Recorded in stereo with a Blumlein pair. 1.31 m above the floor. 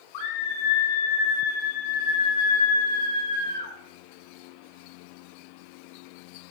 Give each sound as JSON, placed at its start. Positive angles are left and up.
{"t": 0.1, "sound": "a scream", "azimuth_deg": 50, "distance_m": 5.0}